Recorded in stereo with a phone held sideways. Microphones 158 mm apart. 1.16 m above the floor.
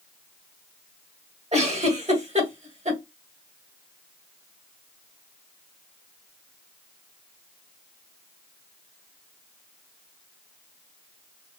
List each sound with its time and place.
1.5 s a giggle: 45° right (ahead or behind), 1.6 m